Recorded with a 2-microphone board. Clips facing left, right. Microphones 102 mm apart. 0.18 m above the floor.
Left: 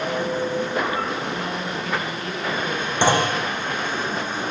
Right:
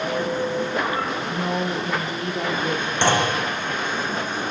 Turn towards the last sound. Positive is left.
turn(degrees=15)  # may be behind; listen again after turning